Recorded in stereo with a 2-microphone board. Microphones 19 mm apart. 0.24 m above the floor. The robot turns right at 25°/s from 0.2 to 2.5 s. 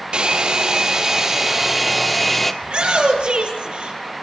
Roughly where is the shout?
Right.